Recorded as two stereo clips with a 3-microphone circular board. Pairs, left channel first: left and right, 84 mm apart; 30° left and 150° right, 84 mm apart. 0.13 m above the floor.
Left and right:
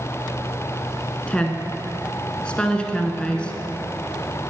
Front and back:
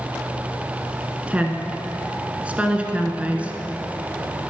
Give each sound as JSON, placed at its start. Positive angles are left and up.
{"t": 1.3, "sound": "a woman speaking", "azimuth_deg": 155, "distance_m": 1.3}